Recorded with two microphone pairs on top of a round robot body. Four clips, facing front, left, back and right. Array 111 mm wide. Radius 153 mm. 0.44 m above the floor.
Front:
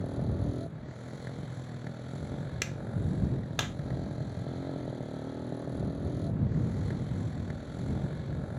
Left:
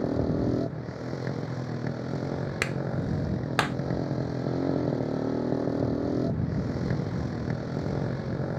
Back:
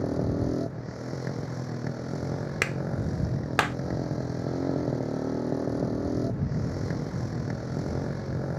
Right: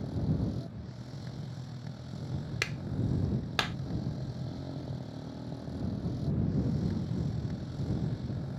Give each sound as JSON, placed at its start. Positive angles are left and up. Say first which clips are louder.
{"t": 0.0, "sound": "a motorcycle", "louder": "left 8 dB, back 7 dB", "azimuth_deg": 120}
{"t": 2.6, "sound": "a clap", "louder": "left 6 dB, back 6 dB", "azimuth_deg": 145}